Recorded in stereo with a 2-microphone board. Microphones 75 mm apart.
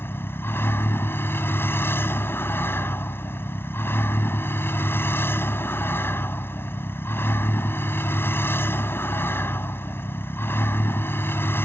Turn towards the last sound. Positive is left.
turn(degrees=30)  # may be behind; listen again after turning